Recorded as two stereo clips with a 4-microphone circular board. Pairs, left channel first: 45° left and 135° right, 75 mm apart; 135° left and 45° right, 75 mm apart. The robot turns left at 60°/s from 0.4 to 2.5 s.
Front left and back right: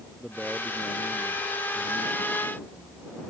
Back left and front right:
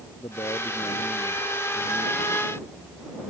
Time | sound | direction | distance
0.2 | a man speaking | 140° left | ?